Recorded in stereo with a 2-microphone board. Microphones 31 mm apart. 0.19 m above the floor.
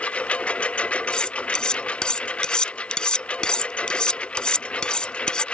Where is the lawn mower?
40° left (ahead or behind); by 5.5 s 35° left (ahead or behind).